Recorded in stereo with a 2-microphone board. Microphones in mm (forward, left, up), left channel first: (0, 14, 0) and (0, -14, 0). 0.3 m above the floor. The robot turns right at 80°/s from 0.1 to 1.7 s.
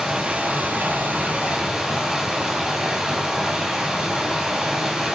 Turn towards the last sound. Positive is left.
turn(degrees=-20)